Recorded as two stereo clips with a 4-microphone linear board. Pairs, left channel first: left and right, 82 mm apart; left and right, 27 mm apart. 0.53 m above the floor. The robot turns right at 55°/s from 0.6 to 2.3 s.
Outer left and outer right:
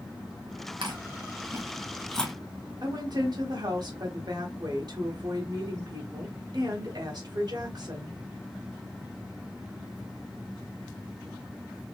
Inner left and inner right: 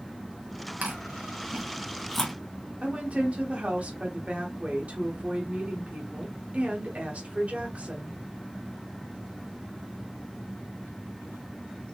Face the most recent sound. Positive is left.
turn(degrees=-55)  # may be behind; listen again after turning